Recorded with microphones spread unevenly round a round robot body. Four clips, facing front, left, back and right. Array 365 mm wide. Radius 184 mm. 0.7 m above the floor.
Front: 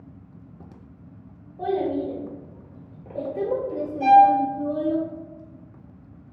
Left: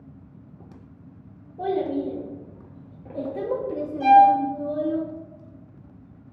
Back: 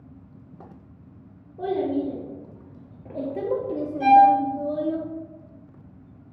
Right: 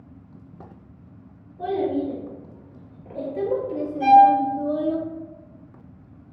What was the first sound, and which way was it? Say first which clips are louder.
A child speaking: right 1 dB, even; 145° left.